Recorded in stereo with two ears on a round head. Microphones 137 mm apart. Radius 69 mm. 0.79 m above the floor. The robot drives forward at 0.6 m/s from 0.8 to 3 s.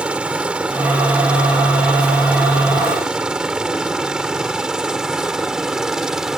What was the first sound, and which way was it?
A helicopter, 5° right (ahead or behind).